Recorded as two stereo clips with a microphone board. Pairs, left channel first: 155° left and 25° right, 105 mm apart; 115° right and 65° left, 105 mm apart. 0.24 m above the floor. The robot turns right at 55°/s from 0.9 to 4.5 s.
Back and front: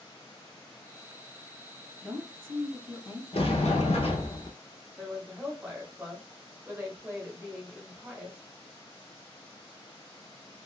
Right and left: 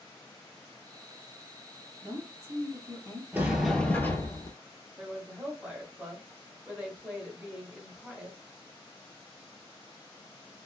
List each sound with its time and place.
2.0 s a woman speaking: 50° left, 1.6 m; by 3.2 s 120° left, 1.6 m
3.3 s a sliding door: 140° left, 0.8 m; by 4.5 s 160° right, 0.8 m
5.0 s a woman speaking: 20° left, 1.0 m